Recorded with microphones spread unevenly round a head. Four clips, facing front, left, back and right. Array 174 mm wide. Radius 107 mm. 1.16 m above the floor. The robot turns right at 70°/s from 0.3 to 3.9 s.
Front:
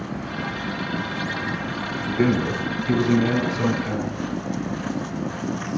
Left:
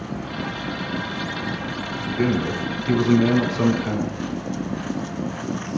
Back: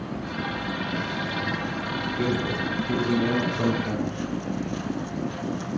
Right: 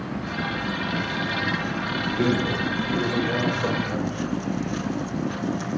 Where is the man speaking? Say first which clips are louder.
Left 2 dB, front 6 dB; 10° right, 10 m; by 4.2 s 120° left, 10 m.